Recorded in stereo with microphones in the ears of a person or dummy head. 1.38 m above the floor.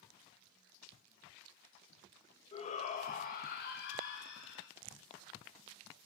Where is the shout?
30° left (ahead or behind), 1.7 m; by 4.7 s 65° left (ahead or behind), 2.5 m.